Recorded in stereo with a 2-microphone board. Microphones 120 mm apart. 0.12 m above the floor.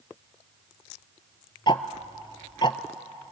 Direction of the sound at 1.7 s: 40° left (ahead or behind).